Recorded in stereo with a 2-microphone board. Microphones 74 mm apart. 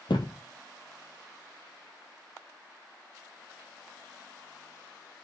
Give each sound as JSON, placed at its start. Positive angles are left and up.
{"t": 0.1, "sound": "a thud", "side_deg": 75, "distance_m": 1.3}